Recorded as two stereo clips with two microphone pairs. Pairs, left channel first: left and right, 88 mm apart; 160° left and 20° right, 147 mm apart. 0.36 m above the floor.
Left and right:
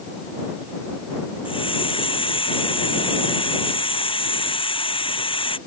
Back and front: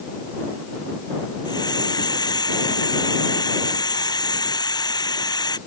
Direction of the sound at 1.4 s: 95° left.